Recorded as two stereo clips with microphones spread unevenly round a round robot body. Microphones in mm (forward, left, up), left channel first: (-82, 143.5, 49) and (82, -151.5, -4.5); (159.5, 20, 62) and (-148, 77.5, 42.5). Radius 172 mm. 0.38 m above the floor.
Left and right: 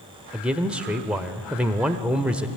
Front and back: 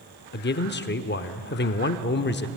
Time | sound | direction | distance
0.3 | a man speaking | 5° left | 1.0 m